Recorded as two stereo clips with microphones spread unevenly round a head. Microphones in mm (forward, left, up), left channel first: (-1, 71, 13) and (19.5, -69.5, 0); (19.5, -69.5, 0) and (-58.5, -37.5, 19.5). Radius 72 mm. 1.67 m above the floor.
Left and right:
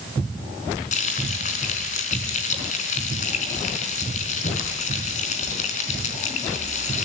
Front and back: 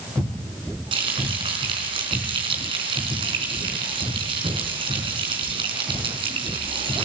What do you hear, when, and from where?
0.9 s frying: 135° left, 4 m